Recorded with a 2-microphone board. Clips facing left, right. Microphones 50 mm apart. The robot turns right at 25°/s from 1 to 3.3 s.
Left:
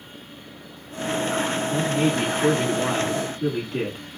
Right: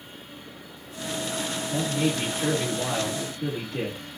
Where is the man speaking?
80° left, 1.7 m; by 4.0 s 120° left, 1.7 m.